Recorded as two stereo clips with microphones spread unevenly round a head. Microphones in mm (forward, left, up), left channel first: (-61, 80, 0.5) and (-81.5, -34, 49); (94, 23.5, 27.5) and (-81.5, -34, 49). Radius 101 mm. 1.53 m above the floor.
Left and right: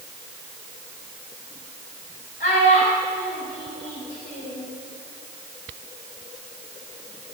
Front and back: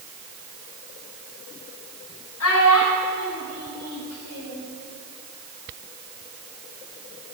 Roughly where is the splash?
No splash in this recording.